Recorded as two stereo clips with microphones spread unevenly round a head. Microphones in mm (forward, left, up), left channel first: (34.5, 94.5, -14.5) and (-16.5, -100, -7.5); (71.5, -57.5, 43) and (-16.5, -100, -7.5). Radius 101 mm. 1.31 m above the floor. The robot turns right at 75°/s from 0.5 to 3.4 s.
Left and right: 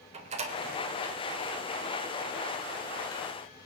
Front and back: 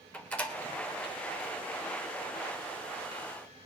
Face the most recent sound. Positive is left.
turn(degrees=170)